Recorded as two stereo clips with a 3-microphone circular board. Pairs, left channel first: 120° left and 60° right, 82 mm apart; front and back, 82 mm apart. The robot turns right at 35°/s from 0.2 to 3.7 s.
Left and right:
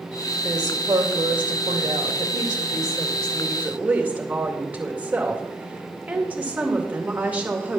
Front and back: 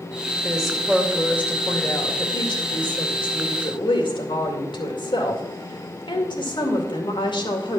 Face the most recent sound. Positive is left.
turn(degrees=10)